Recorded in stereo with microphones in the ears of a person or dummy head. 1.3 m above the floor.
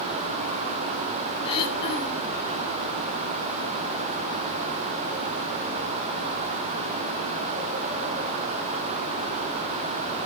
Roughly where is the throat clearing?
Left.